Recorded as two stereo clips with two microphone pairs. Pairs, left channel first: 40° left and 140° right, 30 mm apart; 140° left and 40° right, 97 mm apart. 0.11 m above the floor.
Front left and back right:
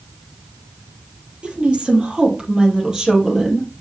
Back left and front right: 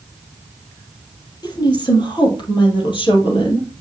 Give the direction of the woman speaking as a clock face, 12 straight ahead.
6 o'clock.